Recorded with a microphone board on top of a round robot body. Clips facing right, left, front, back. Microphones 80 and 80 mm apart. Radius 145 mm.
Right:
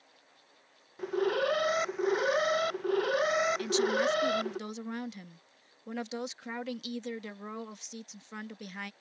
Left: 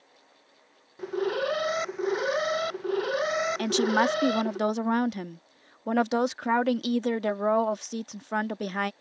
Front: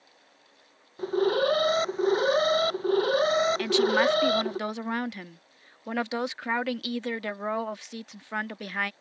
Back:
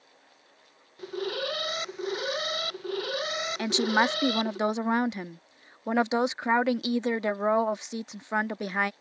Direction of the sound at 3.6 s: 110° left.